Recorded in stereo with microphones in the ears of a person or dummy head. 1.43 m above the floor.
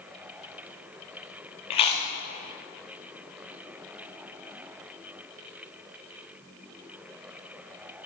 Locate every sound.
1.7 s chewing: 30° left (ahead or behind), 0.8 m